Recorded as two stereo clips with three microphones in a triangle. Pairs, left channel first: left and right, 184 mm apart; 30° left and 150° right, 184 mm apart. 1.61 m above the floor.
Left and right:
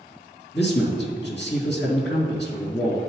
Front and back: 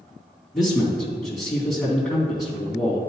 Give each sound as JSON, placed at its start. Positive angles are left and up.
{"t": 0.5, "sound": "a man speaking", "azimuth_deg": 120, "distance_m": 2.5}